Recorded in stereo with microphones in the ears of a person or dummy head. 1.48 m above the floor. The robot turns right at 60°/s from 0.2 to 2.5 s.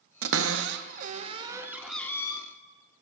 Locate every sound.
0.2 s a cupboard door: 70° right (ahead or behind), 0.6 m; by 2.4 s 30° left (ahead or behind), 0.6 m